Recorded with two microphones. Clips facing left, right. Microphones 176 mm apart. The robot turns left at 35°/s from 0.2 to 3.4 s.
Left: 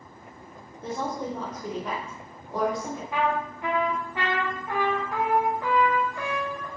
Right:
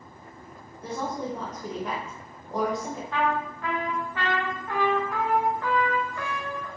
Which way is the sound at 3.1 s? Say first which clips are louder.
Even; 10° left (ahead or behind).